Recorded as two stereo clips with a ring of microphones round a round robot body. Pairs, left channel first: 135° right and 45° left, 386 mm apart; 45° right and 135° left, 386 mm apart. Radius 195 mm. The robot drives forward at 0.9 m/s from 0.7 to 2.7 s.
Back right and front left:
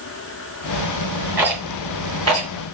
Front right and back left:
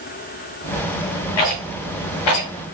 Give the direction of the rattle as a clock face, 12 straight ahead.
1 o'clock.